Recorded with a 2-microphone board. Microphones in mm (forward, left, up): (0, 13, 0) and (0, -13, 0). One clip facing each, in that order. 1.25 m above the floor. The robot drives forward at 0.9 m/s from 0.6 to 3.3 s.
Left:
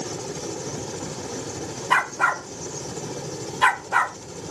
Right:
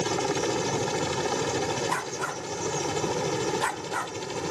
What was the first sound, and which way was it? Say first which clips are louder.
A helicopter: right 5 dB; 50° right (ahead or behind).